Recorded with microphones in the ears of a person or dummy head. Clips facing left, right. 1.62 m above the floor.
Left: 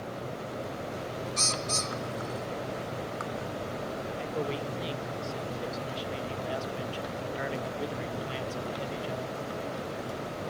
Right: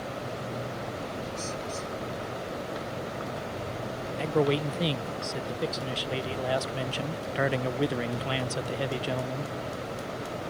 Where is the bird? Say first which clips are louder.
Even; 80° left.